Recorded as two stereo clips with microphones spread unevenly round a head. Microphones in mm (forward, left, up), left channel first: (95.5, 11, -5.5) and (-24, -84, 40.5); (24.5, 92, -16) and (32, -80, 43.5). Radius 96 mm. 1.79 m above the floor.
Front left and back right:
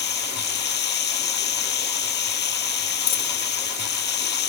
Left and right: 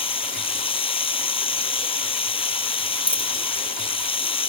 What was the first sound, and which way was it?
Running water, 35° left.